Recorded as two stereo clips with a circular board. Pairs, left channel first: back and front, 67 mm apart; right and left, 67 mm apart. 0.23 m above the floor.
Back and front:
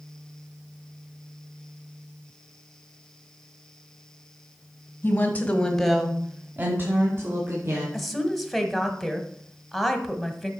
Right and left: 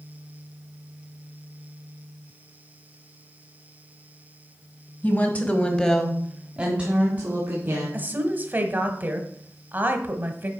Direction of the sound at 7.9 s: 95° left.